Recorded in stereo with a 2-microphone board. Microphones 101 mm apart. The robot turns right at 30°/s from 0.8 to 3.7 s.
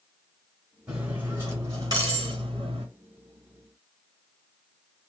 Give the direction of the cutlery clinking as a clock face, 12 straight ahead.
6 o'clock.